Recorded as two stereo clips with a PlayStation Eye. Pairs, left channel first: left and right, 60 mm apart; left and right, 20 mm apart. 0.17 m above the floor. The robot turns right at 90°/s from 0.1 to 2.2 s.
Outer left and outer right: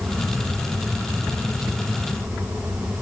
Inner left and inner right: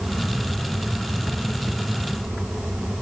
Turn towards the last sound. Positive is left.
No sound to turn to.